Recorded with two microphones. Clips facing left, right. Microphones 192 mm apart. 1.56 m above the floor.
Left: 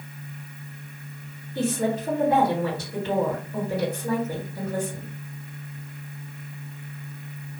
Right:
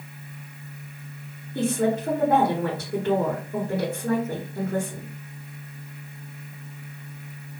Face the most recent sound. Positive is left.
turn(degrees=-55)  # may be behind; listen again after turning